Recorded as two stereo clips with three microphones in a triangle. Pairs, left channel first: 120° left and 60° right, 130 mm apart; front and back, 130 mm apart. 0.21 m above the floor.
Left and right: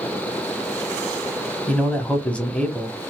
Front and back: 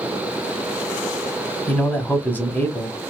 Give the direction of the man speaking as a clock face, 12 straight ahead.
10 o'clock.